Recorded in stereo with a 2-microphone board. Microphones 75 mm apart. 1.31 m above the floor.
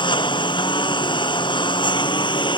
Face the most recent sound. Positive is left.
turn(degrees=85)